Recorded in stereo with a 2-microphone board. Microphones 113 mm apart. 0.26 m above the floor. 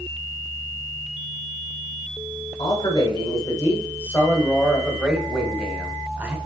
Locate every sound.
2.6 s a man speaking: 40° left (ahead or behind), 2 m; by 6.3 s 20° right (ahead or behind), 2.5 m